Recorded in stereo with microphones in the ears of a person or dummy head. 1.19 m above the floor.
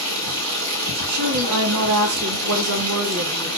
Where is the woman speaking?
70° right (ahead or behind), 0.8 m.